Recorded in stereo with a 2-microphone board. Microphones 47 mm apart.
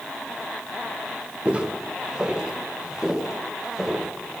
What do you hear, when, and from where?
1.4 s footsteps: 25° right (ahead or behind), 3.5 m; by 4.1 s 10° right (ahead or behind), 6.5 m